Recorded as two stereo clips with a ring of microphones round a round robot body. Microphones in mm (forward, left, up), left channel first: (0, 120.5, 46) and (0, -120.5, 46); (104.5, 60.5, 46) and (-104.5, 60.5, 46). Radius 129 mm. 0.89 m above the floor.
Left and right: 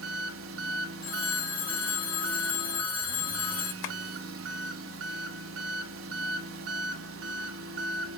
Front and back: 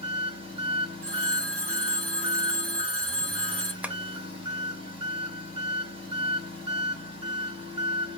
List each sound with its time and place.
0.0 s an engine running: 115° right, 0.7 m
1.0 s a phone ringing: 120° left, 1.2 m
3.8 s tapping: 95° left, 0.6 m